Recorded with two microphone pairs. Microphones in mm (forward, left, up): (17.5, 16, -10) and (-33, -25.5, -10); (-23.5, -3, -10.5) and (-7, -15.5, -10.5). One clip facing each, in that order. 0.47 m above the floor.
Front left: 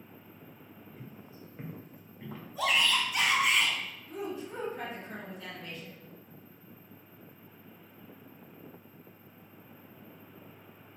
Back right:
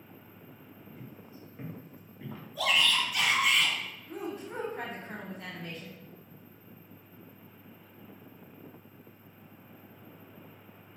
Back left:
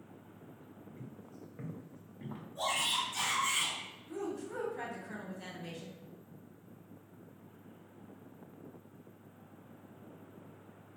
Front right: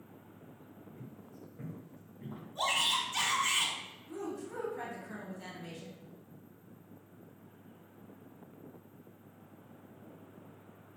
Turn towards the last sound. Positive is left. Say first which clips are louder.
# even, back left 1 dB
turn(degrees=-140)